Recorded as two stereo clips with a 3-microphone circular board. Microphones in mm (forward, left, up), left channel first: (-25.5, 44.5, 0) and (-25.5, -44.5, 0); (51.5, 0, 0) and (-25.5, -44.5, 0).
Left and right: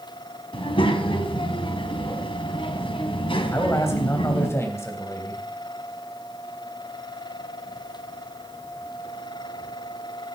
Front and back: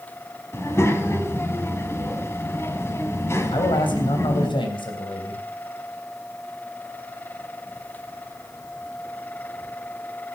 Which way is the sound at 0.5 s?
90° left.